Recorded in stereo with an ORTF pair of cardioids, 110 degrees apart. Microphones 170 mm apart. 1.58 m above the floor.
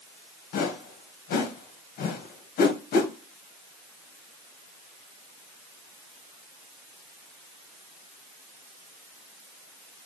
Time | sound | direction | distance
0.5 | a whoosh | 65° left | 1.1 m